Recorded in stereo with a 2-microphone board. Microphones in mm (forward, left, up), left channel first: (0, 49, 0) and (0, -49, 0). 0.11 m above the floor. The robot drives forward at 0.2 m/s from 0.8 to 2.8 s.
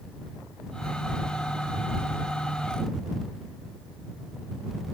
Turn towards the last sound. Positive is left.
No sound to turn to.